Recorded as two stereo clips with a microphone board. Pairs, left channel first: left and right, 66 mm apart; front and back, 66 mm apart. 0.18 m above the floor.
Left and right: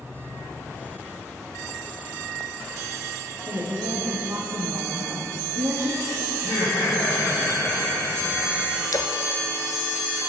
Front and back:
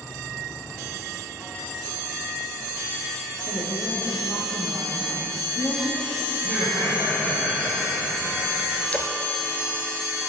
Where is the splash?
65° left, 0.9 m.